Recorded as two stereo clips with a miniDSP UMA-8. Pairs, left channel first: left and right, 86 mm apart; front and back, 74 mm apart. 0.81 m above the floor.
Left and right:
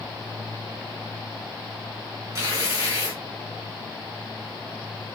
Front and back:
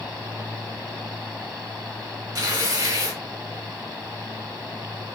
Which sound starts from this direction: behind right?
Tearing paper, at 2.4 s.